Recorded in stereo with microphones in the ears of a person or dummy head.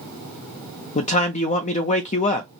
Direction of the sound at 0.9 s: 30° left (ahead or behind).